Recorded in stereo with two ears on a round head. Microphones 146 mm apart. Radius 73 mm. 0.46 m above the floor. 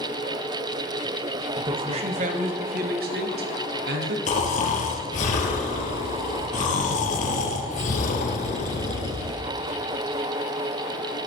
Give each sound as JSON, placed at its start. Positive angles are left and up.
{"t": 1.6, "sound": "a man speaking", "side_deg": -25, "distance_m": 2.0}
{"t": 4.3, "sound": "snoring", "side_deg": 50, "distance_m": 3.5}